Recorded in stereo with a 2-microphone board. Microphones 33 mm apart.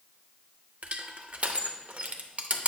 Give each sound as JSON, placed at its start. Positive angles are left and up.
{"t": 0.8, "sound": "crushing", "side_deg": -45, "distance_m": 0.6}